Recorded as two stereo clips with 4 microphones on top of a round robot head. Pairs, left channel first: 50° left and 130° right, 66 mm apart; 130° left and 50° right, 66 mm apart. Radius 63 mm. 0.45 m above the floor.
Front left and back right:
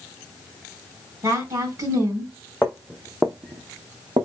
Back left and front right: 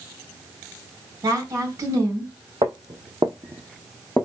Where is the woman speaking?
95° right, 2.5 m.